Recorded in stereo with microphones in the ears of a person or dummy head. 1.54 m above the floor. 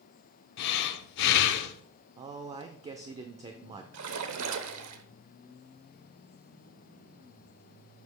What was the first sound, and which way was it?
Breathing, 60° left (ahead or behind).